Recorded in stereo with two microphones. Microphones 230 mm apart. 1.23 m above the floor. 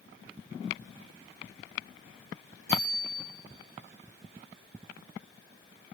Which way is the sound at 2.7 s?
50° left (ahead or behind).